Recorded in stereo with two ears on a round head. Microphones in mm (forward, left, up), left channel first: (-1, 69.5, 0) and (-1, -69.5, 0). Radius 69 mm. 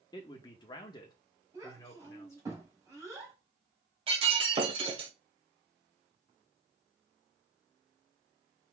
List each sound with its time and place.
0.1 s a man speaking: 25° left (ahead or behind), 0.8 m; by 2.5 s 20° left (ahead or behind), 1.4 m
1.5 s a child speaking: 20° right (ahead or behind), 2 m
4.1 s breaking glass: 35° right (ahead or behind), 1.5 m